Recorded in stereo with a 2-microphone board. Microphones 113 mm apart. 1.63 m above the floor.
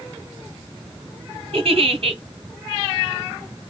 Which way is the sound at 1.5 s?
55° right (ahead or behind).